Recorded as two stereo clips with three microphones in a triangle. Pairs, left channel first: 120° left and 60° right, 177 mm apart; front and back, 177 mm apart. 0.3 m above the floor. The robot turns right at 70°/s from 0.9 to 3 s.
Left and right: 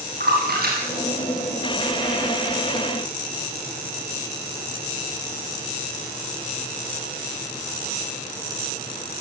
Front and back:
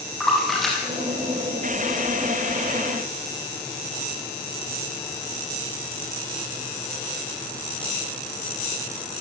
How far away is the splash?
About 9.5 m.